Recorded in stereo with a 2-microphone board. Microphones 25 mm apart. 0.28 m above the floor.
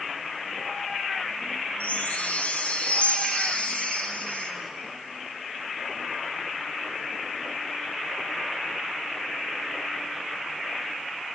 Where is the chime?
60° left (ahead or behind), 2 m.